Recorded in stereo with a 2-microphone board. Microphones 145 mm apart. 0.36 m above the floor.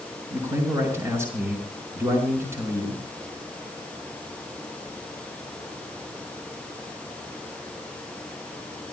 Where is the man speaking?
20° right (ahead or behind), 5 m.